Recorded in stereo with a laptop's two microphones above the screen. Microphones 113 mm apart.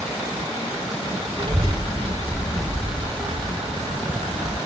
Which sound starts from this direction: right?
A child speaking, at 1.4 s.